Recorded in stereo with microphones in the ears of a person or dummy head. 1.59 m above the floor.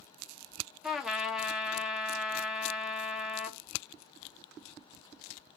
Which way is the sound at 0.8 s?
Centre (ahead or behind).